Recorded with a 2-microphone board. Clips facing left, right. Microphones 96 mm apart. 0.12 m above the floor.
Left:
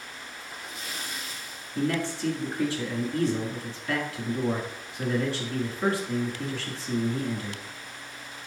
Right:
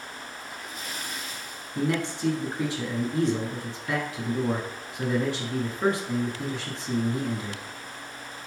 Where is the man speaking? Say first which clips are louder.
Even; 20° right (ahead or behind), 1.1 m.